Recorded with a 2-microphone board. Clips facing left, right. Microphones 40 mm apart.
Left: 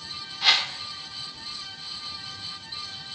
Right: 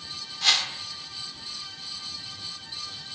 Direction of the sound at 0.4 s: 15° left (ahead or behind).